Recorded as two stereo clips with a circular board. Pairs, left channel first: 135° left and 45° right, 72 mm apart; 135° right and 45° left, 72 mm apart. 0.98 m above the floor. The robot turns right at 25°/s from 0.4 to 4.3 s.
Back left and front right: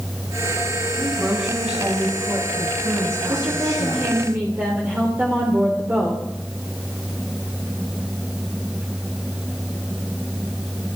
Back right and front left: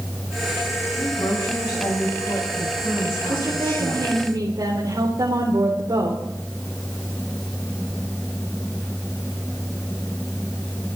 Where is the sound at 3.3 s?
10° right, 3.5 m; by 6.2 s 15° left, 3.5 m.